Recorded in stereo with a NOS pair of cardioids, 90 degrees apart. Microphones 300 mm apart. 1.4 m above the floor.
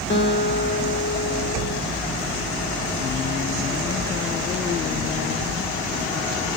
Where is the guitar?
35° left, 1.9 m.